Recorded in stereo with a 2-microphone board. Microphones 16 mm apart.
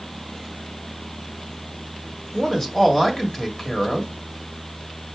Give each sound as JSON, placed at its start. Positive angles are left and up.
{"t": 2.3, "sound": "a man speaking", "side_deg": 25, "distance_m": 1.3}